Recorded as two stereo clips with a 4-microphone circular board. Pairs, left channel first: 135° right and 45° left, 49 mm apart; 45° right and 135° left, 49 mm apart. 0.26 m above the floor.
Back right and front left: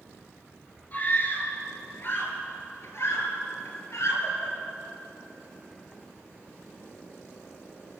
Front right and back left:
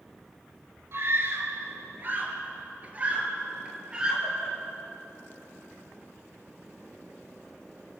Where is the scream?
170° left, 4.5 m; by 4.5 s 150° right, 5.5 m.